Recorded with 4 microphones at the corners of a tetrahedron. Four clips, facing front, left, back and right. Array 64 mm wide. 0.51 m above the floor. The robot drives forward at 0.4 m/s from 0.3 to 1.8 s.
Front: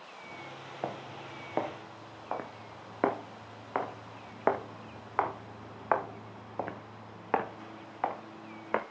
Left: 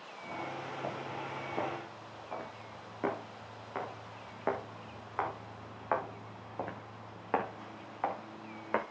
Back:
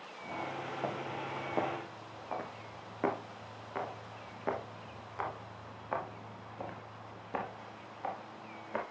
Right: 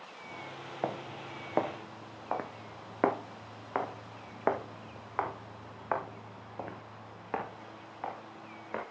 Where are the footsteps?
70° right, 3 m; by 8.8 s 20° left, 3 m.